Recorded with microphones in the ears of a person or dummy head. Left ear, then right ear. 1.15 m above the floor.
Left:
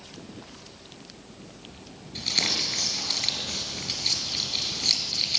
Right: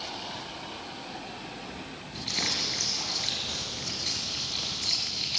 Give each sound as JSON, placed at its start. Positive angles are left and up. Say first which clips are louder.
{"t": 2.1, "sound": "crumpling", "louder": "left 4 dB", "side_deg": 20, "distance_m": 5.0}